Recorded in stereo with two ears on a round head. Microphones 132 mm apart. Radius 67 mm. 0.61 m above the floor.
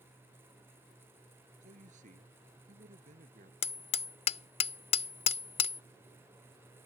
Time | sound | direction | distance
1.6 | a man speaking | 55° right (ahead or behind) | ?
3.6 | hammering | 40° left (ahead or behind) | ?